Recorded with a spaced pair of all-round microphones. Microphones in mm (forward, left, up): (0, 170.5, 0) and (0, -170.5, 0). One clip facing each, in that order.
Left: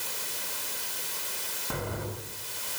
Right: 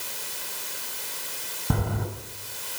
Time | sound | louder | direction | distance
1.7 | footsteps | right 6 dB | 50° right (ahead or behind) | 4.5 m